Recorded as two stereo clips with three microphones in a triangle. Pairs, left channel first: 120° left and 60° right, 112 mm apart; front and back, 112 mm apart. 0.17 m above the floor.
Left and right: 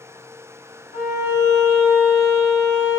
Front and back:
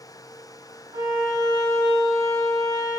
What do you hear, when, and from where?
0.9 s a violin: 130° left, 3.5 m